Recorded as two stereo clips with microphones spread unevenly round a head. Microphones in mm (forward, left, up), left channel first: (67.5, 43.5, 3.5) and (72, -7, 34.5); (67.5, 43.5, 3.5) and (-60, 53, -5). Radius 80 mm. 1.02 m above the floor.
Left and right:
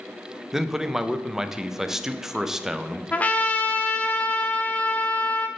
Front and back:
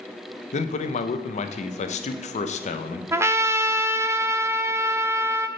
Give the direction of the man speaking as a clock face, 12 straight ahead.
11 o'clock.